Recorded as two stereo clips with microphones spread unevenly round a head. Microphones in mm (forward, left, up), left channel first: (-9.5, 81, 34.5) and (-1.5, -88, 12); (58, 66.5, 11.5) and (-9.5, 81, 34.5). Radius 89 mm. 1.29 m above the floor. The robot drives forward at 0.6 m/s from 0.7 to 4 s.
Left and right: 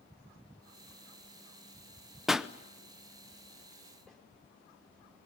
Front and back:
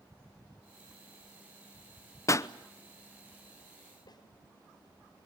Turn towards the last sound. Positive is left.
turn(degrees=5)